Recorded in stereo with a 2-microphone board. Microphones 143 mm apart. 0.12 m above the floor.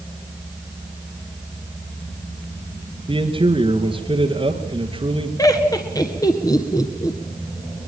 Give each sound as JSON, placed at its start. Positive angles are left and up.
{"t": 3.1, "sound": "a man speaking", "side_deg": -40, "distance_m": 2.5}
{"t": 5.4, "sound": "laughter", "side_deg": 25, "distance_m": 1.5}